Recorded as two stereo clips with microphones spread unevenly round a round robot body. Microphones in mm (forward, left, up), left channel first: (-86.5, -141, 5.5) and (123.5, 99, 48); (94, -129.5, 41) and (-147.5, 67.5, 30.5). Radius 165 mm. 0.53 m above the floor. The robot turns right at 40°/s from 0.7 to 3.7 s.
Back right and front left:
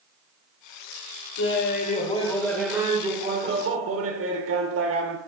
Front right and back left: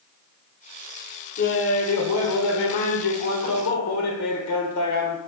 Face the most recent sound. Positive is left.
turn(degrees=0)